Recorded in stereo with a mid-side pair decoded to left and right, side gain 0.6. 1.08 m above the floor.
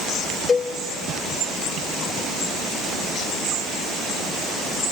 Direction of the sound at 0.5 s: 35° left.